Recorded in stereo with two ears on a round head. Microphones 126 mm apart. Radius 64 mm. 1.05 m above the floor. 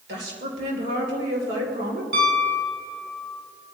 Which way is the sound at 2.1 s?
75° right (ahead or behind).